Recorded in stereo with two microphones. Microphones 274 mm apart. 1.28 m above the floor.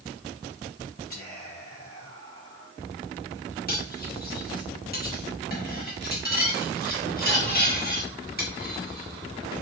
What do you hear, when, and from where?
1.1 s whispering: 35° left (ahead or behind), 3.5 m
3.7 s cutlery clinking: 35° left (ahead or behind), 2.0 m